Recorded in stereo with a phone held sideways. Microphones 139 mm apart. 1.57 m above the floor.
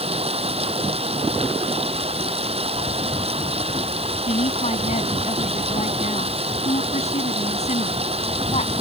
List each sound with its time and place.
0.0 s running water: 45° right (ahead or behind)
4.3 s a woman speaking: 50° left (ahead or behind)